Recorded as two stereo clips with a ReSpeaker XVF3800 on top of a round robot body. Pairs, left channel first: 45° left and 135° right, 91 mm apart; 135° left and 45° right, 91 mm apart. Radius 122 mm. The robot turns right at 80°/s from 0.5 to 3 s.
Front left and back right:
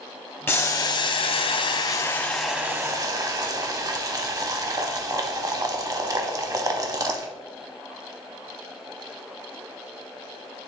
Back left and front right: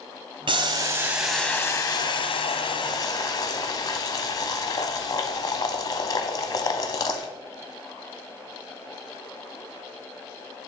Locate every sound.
0.5 s boiling: 20° right, 0.8 m; by 7.3 s straight behind, 0.8 m